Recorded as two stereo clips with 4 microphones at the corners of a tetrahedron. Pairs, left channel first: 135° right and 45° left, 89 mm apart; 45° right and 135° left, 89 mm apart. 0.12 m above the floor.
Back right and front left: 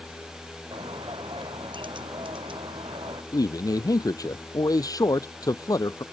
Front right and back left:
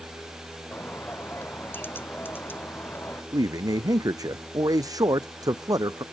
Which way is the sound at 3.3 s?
Straight behind.